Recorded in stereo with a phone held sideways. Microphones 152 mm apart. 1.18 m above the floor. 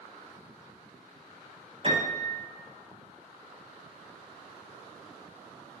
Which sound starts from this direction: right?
A piano, at 1.8 s.